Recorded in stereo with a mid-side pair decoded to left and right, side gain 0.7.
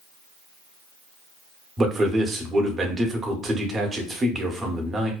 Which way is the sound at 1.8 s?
25° right.